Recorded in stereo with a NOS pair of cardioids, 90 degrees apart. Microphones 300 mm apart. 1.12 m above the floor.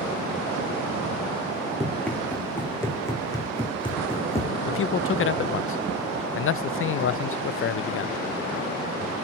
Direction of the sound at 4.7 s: 45° left.